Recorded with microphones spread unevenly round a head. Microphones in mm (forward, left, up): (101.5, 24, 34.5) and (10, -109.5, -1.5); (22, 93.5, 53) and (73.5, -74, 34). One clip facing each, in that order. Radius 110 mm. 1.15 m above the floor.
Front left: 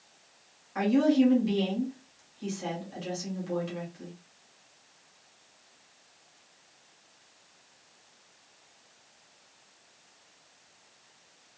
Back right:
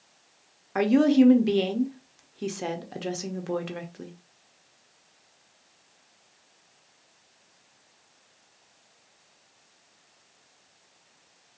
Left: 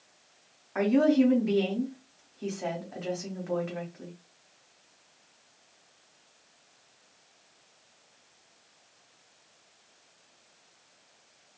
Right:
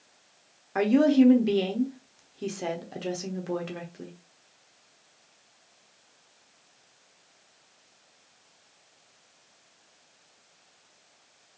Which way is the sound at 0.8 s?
130° right.